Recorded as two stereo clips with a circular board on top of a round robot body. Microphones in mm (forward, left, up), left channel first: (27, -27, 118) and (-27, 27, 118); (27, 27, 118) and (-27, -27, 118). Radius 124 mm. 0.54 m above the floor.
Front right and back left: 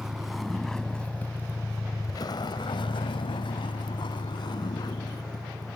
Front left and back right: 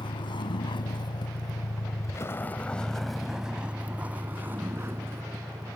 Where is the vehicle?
50° left; by 5.8 s 80° right.